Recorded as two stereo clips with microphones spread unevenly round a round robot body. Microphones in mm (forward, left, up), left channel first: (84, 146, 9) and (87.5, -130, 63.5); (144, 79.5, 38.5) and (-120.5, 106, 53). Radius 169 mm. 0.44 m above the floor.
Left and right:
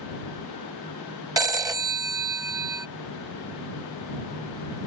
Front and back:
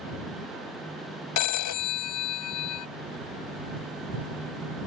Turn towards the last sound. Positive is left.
turn(degrees=-10)